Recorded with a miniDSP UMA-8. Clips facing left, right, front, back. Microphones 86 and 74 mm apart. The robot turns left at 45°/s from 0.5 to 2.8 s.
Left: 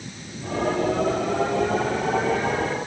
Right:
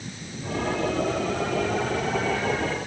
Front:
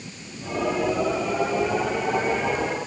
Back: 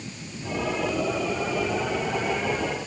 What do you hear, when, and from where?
Only background noise.